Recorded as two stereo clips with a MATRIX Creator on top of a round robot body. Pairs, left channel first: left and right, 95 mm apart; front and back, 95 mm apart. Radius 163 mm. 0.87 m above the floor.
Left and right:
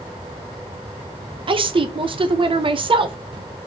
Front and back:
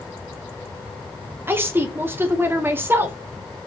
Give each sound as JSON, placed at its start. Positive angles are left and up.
{"t": 1.5, "sound": "a woman speaking", "azimuth_deg": -115, "distance_m": 0.6}